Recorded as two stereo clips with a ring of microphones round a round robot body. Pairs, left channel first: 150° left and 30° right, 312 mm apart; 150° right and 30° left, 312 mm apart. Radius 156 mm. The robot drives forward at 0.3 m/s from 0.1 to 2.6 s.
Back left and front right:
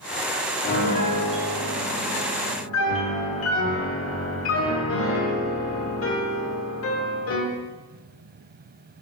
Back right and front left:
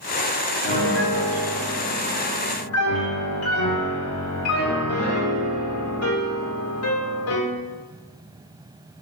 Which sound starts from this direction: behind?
A piano, at 0.6 s.